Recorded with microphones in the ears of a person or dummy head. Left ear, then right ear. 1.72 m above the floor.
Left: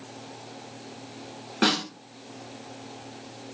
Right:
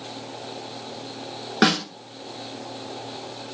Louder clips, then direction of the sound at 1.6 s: Right 3 dB; 35° right (ahead or behind).